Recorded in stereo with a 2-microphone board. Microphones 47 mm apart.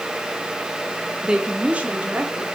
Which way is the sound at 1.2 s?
20° right (ahead or behind).